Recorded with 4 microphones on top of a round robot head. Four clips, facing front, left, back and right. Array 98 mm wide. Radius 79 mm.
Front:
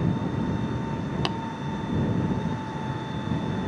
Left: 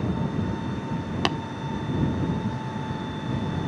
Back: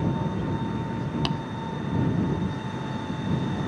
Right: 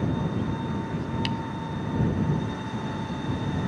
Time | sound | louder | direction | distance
1.2 | tapping | left 9 dB, front 1 dB | 90° left | ?